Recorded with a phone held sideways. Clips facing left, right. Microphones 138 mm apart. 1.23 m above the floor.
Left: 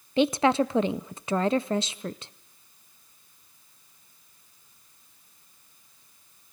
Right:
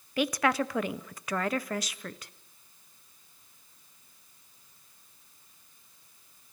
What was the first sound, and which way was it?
A woman speaking, 25° left (ahead or behind).